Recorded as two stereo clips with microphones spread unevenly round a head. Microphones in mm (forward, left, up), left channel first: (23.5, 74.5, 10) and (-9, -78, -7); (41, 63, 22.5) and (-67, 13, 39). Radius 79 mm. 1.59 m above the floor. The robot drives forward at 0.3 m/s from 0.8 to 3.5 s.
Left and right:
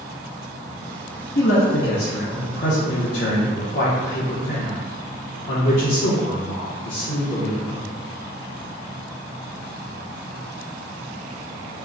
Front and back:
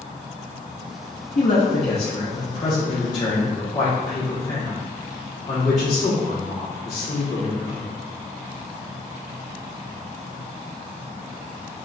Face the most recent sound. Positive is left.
turn(degrees=90)